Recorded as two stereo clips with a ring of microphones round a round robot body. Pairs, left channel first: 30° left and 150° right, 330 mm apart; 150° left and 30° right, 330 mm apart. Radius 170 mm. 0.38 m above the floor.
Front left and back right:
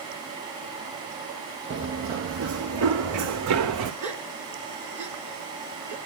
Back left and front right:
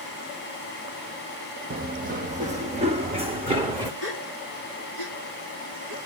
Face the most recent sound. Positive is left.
turn(degrees=-65)